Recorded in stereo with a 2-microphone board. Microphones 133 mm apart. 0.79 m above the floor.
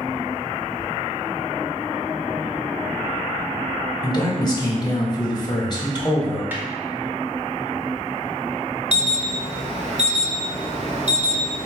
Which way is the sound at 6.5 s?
15° right (ahead or behind).